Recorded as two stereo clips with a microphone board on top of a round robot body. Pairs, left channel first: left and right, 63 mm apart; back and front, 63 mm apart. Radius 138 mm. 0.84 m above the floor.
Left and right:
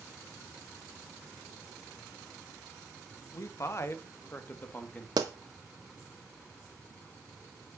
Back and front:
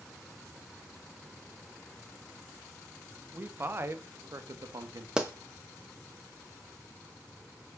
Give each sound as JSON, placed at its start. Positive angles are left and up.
{"t": 3.3, "sound": "a man speaking", "azimuth_deg": 60, "distance_m": 1.8}
{"t": 5.2, "sound": "a pop", "azimuth_deg": -75, "distance_m": 0.8}